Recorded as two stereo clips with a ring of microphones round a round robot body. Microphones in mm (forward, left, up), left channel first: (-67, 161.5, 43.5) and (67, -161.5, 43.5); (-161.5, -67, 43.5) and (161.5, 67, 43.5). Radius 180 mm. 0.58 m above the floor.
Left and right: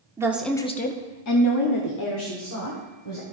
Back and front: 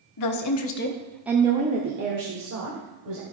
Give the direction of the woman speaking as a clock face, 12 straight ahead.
5 o'clock.